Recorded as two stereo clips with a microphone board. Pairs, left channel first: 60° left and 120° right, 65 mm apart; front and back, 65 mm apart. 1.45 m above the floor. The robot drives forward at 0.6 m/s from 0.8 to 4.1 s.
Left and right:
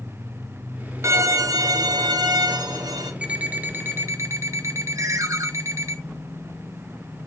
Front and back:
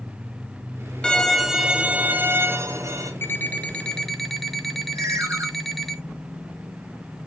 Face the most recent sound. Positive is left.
turn(degrees=-145)